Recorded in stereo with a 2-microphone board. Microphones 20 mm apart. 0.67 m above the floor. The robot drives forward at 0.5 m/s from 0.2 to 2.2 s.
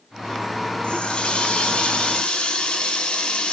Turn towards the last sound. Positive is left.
turn(degrees=45)  # may be behind; listen again after turning